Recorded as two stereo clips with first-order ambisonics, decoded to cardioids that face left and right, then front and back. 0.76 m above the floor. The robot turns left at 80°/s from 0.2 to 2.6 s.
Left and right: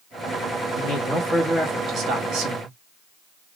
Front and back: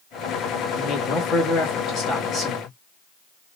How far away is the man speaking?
About 1.0 m.